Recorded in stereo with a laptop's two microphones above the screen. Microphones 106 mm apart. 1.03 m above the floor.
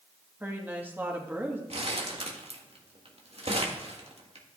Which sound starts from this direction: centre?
A woman speaking, at 0.4 s.